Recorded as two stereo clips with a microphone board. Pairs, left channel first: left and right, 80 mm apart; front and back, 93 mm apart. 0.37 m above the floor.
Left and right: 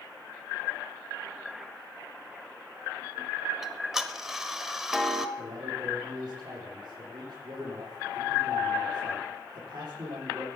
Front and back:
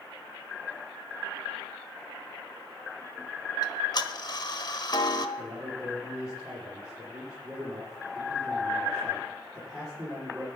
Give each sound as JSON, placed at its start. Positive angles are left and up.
{"t": 3.6, "sound": "ticking", "azimuth_deg": -5, "distance_m": 1.2}
{"t": 5.4, "sound": "a man speaking", "azimuth_deg": -95, "distance_m": 8.5}